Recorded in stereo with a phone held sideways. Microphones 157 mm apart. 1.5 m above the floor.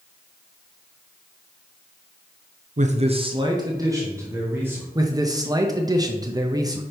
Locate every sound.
2.8 s a man speaking: 55° right (ahead or behind), 0.6 m; by 4.8 s 15° right (ahead or behind), 1.9 m
5.0 s a man speaking: 25° right (ahead or behind), 0.6 m